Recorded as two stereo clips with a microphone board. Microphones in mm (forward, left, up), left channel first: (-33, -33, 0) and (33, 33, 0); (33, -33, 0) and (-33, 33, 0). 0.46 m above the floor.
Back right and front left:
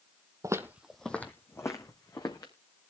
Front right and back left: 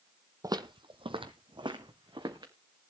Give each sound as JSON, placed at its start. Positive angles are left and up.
{"t": 0.4, "sound": "footsteps", "azimuth_deg": 90, "distance_m": 0.9}